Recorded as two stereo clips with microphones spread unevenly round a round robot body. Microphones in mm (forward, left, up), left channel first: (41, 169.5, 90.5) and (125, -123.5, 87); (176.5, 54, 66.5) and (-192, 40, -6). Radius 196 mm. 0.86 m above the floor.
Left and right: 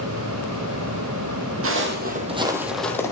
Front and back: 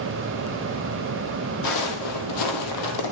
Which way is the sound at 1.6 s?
30° right.